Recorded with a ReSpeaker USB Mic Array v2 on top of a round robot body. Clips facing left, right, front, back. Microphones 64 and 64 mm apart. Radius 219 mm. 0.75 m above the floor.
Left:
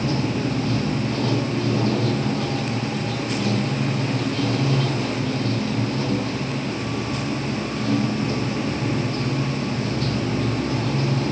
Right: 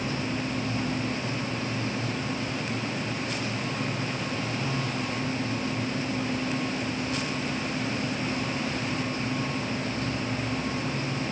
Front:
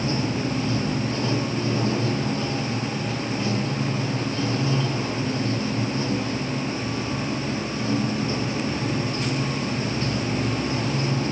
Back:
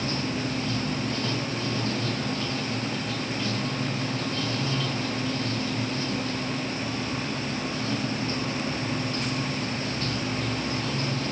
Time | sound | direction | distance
0.0 | running water | 70° left | ?